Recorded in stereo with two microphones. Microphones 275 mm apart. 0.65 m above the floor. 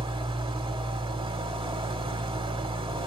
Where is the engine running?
20° right (ahead or behind), 0.9 m.